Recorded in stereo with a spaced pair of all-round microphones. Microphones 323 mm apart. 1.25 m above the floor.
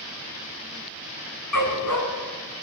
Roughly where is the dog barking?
Left.